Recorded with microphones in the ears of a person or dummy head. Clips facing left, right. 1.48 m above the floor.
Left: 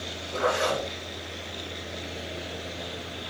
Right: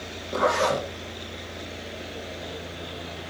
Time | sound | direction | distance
0.3 | a zipper | 85° right | 1.7 m